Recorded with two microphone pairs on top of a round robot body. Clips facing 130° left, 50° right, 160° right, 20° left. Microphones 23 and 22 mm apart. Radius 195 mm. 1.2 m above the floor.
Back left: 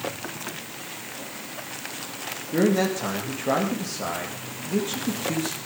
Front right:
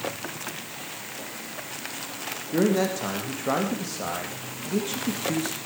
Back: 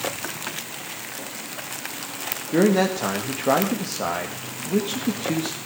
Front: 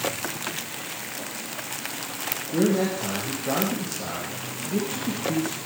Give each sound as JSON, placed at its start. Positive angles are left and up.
{"t": 2.5, "sound": "a man speaking", "azimuth_deg": -140, "distance_m": 2.5}